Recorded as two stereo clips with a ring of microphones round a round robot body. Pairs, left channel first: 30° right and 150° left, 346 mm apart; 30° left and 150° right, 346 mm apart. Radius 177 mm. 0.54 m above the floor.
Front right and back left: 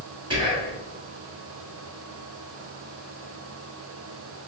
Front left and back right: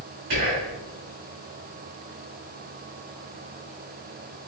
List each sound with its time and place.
0.3 s whispering: 135° right, 1.3 m